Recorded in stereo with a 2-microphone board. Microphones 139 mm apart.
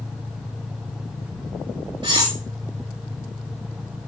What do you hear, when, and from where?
2.0 s cutlery clinking: 35° right (ahead or behind), 0.8 m